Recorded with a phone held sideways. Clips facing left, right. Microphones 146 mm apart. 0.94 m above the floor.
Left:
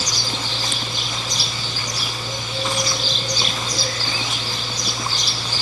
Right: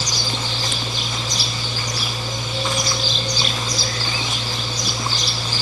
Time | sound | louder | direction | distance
0.0 | a machine running | right 1 dB | 20° right (ahead or behind) | ?